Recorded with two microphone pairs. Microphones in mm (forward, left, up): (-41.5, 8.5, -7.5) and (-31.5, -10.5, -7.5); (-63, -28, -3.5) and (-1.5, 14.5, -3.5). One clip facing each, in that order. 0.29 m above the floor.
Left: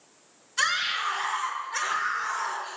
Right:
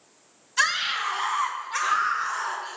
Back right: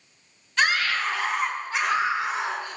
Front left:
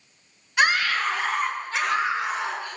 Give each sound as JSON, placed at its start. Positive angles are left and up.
{"t": 0.6, "sound": "a scream", "azimuth_deg": -40, "distance_m": 2.5}